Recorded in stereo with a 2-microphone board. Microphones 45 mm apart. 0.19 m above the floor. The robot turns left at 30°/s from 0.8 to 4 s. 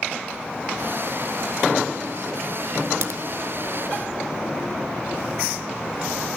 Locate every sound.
3.0 s a crack: 70° right (ahead or behind), 1.0 m